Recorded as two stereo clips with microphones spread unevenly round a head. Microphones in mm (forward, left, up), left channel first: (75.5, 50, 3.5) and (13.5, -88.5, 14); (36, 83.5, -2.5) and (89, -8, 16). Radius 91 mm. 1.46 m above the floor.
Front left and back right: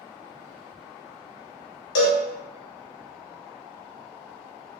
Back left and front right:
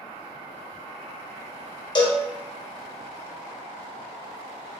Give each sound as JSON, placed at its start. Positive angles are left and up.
{"t": 1.9, "sound": "a cowbell", "azimuth_deg": 70, "distance_m": 0.8}